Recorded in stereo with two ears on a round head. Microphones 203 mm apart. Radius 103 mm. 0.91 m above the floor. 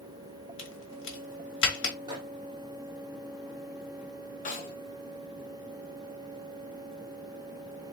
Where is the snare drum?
40° left (ahead or behind), 1.6 m.